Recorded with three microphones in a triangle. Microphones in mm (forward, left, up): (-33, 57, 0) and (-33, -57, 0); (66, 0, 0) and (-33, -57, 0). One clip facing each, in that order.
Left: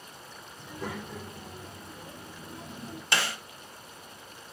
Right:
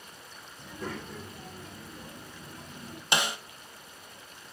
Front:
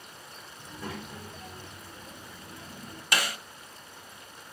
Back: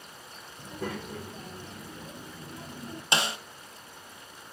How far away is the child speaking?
About 2.5 m.